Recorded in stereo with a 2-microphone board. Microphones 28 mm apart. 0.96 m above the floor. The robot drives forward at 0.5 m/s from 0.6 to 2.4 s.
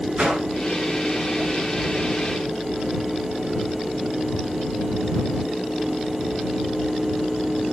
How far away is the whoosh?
About 9.5 m.